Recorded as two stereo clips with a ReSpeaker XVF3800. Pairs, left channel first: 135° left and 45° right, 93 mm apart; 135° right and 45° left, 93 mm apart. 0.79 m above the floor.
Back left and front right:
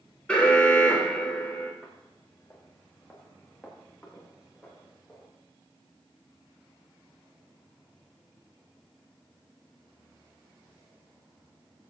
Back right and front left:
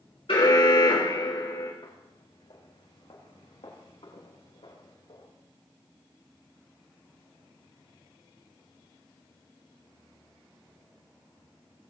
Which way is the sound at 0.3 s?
150° right.